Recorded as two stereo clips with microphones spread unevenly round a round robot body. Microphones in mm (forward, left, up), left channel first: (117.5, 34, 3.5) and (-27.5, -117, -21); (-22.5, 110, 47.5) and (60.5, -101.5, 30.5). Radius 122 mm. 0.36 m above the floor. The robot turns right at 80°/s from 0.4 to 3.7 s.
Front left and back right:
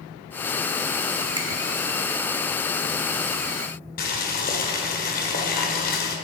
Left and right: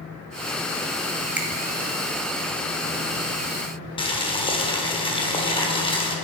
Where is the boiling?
55° left, 1.3 m.